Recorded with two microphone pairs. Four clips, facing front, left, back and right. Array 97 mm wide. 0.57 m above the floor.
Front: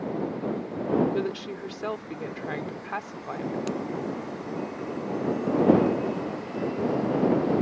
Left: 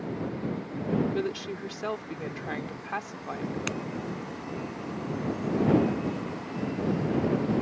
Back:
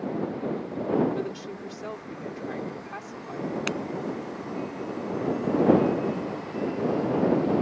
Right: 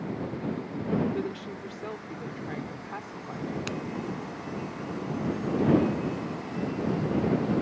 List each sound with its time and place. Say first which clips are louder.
1.1 s a woman speaking: left 2 dB, front 3 dB; 40° left
3.7 s breaking glass: left 1 dB, front 1 dB; 165° left